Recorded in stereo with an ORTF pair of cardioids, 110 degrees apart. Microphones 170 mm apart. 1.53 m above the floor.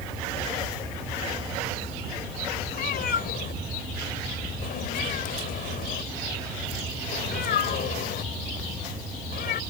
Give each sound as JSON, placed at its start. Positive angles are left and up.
{"t": 2.7, "sound": "a cat meowing", "azimuth_deg": 65}